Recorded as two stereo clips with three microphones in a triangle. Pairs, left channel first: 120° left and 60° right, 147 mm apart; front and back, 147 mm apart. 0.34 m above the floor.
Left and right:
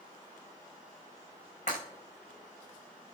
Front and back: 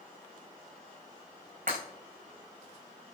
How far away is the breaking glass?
About 6 m.